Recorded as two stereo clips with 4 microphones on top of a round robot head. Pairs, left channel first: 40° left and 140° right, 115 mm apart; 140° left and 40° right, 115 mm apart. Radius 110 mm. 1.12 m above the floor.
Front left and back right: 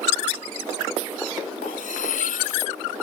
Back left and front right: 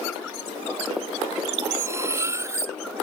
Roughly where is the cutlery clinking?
Ahead left.